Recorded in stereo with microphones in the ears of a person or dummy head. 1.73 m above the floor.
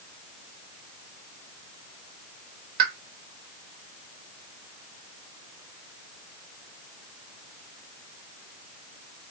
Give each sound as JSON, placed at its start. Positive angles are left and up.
{"t": 2.8, "sound": "a pop", "side_deg": -55, "distance_m": 0.9}